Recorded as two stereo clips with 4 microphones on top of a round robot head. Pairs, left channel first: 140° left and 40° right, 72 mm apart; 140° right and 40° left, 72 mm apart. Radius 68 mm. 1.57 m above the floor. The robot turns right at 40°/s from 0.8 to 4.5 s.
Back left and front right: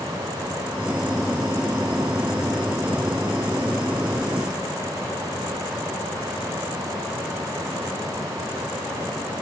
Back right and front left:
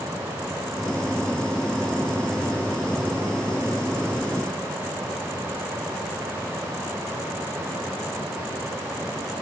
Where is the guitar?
No guitar in this recording.